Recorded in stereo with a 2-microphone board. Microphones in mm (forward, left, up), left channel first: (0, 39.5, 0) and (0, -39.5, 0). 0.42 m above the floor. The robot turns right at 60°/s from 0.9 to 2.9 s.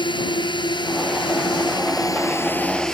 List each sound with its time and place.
0.0 s a drone: 75° left (ahead or behind); by 2.9 s 5° left (ahead or behind)